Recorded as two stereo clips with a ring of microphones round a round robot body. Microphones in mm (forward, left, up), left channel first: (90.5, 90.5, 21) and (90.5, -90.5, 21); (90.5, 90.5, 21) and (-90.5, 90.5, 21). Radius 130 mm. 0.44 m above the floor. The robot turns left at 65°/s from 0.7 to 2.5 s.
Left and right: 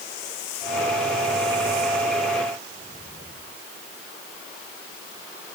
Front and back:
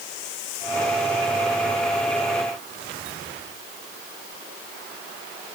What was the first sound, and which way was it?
Only background noise.